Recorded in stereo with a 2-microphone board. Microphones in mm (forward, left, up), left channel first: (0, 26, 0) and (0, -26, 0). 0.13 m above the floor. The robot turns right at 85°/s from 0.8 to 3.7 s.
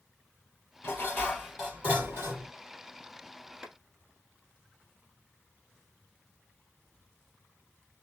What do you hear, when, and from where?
0.8 s dishes clattering: 120° left, 2.0 m; by 2.5 s 100° right, 2.0 m
3.6 s a clap: 10° right (ahead or behind), 1.4 m; by 3.7 s 5° right (ahead or behind), 1.4 m